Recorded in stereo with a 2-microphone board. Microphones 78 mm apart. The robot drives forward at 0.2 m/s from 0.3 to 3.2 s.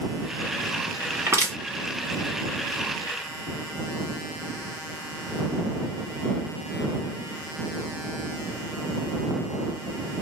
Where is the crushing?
35° right (ahead or behind), 1.9 m.